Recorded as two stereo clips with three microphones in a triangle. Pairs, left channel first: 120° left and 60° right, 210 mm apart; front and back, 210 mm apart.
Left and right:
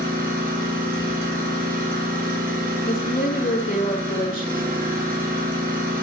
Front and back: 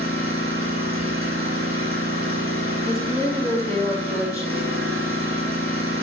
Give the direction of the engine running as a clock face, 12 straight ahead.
12 o'clock.